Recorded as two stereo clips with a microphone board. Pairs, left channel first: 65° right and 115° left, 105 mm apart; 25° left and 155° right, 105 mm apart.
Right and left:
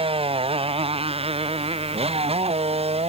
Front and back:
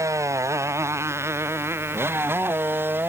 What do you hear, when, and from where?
0.0 s a motorcycle: 140° left; by 3.1 s 130° left